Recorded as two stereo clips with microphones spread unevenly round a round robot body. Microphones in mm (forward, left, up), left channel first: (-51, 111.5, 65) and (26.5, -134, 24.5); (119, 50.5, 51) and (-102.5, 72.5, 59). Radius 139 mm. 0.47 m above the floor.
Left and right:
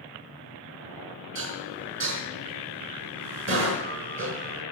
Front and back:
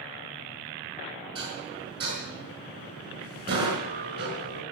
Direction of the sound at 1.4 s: 115° right.